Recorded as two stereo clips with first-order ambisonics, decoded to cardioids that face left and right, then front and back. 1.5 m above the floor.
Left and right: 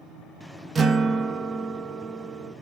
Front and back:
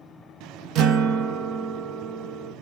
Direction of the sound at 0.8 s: 155° right.